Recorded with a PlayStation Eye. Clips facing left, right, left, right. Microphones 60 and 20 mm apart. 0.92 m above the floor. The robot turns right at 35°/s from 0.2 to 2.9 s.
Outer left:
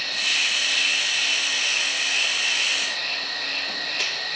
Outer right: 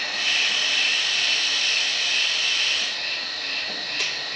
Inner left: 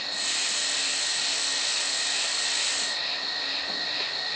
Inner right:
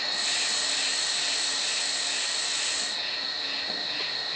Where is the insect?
30° right, 9.5 m; by 4.4 s 65° left, 9.5 m.